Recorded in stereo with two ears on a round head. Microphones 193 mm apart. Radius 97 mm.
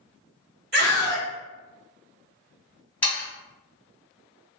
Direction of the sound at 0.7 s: 45° right (ahead or behind).